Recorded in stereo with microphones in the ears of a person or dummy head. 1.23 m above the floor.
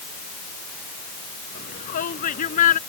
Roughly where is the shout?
Left.